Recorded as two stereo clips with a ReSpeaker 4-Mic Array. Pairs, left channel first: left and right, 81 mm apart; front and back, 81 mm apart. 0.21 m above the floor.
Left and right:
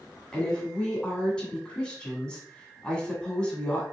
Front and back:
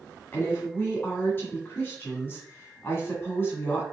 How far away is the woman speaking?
About 1.3 m.